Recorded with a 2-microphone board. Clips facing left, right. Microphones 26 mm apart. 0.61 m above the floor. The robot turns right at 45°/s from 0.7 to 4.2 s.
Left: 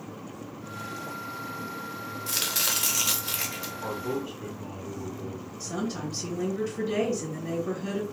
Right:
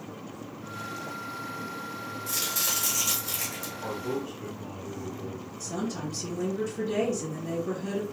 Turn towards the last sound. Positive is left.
turn(degrees=30)  # may be behind; listen again after turning